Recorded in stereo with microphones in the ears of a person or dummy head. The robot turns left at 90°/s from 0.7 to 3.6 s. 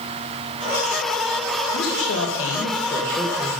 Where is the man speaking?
135° left, 1.9 m; by 3.6 s 35° right, 1.9 m.